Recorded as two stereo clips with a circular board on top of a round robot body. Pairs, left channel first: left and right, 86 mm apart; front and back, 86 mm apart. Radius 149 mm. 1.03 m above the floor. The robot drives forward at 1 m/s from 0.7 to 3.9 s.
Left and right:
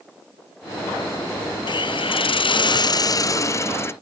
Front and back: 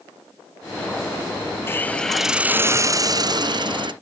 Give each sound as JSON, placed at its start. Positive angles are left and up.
{"t": 1.7, "sound": "a hiss", "azimuth_deg": 60}